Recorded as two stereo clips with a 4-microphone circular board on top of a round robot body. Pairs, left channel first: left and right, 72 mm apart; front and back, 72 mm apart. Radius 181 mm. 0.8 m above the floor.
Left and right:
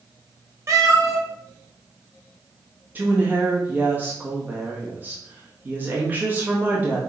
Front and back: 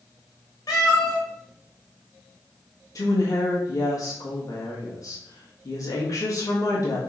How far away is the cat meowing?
About 2 m.